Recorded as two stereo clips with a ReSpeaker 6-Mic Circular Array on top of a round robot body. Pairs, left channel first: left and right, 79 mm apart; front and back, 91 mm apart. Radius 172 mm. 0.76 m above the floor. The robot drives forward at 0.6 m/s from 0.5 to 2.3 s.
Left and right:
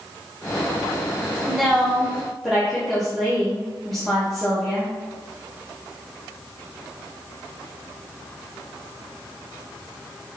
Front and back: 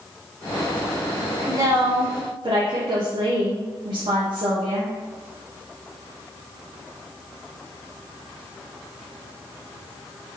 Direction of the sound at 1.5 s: 175° left.